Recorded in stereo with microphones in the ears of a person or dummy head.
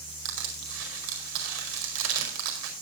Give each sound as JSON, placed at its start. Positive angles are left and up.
{"t": 0.2, "sound": "crushing", "side_deg": -70, "distance_m": 4.5}